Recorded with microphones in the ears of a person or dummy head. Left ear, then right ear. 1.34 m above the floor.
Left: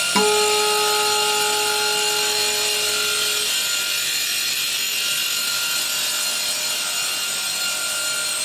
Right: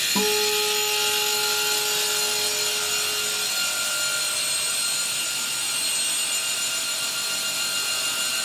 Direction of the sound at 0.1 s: 65° left (ahead or behind).